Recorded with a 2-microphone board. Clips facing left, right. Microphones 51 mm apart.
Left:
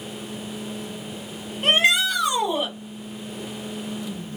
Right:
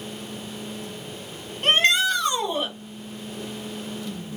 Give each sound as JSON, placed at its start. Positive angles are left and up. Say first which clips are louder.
{"t": 1.6, "sound": "a shout", "louder": "even", "side_deg": 5, "distance_m": 5.0}